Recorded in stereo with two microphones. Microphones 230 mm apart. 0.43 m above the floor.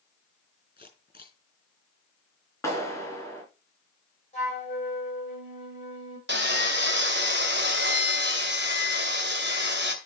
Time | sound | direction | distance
0.8 | a camera shutter | 40° left (ahead or behind) | 6 m
2.6 | a clap | 10° left (ahead or behind) | 4 m
4.3 | a flute | 30° left (ahead or behind) | 8 m
6.3 | sawing | 50° right (ahead or behind) | 1.8 m